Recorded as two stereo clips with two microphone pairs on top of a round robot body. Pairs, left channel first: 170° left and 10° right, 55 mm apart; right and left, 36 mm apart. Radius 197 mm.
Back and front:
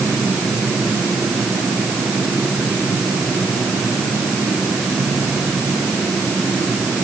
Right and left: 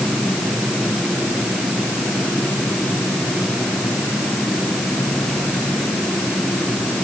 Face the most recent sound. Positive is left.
No sound to turn to.